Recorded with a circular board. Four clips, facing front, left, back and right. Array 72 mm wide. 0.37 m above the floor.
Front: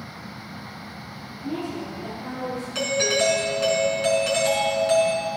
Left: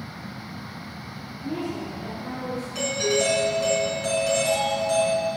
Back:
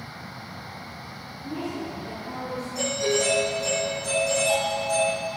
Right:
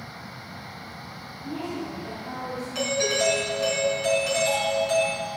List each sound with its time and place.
1.4 s a woman speaking: 45° left, 5.5 m; by 2.6 s 35° left, 6.5 m
2.8 s a doorbell: 10° right, 5 m